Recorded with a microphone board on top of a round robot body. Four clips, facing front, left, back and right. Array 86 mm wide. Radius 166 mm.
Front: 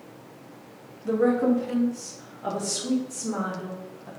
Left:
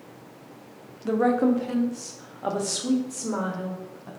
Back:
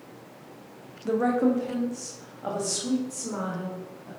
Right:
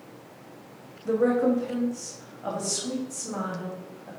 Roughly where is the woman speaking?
Left.